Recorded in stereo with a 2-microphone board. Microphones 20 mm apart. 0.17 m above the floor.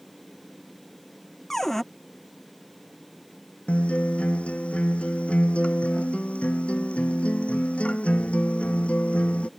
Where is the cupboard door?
15° left (ahead or behind).